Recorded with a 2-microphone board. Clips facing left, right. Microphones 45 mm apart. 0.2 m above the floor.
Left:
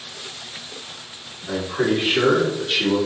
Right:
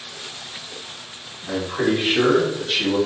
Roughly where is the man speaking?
Right.